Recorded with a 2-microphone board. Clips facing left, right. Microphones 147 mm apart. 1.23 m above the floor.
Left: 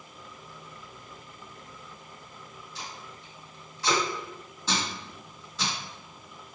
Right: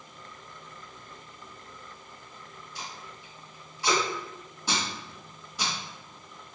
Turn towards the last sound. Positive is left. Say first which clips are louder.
# even
turn(degrees=-15)  # may be behind; listen again after turning